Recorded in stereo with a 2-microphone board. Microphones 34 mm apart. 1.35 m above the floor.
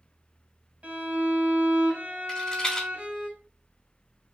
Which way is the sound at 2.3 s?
15° left (ahead or behind).